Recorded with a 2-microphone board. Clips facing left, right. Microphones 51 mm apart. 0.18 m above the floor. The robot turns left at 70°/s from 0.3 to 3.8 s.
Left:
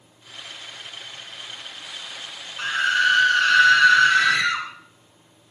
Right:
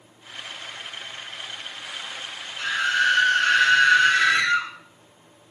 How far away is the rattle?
No rattle in this recording.